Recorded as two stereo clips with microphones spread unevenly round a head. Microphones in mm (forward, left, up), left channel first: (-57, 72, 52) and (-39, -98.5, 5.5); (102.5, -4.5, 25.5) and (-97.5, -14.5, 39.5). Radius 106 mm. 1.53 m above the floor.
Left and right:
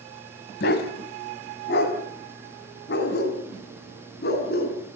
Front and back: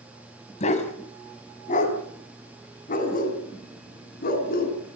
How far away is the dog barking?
About 3.5 m.